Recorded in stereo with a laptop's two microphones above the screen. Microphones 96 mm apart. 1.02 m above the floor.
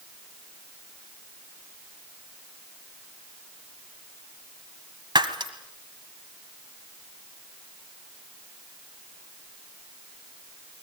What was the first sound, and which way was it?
Breaking glass, 50° right (ahead or behind).